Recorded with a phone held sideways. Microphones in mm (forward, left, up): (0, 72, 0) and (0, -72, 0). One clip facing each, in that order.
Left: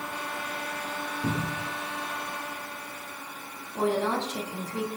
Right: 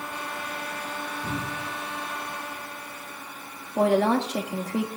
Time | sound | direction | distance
1.2 | a cupboard door | 75° left (ahead or behind) | 4.5 m
3.8 | a woman speaking | 70° right (ahead or behind) | 1.7 m